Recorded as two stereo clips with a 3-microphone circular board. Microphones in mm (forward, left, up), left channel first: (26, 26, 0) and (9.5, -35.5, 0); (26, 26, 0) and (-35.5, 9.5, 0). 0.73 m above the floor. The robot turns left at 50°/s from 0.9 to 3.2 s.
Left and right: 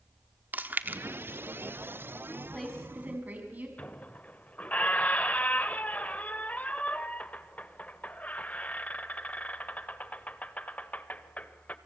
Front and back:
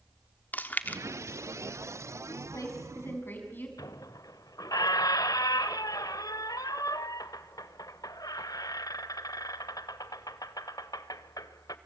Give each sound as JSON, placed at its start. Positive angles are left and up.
{"t": 0.5, "sound": "chewing", "azimuth_deg": -45, "distance_m": 1.1}
{"t": 2.3, "sound": "a woman speaking", "azimuth_deg": 5, "distance_m": 5.5}
{"t": 3.8, "sound": "a squeak", "azimuth_deg": 5, "distance_m": 1.1}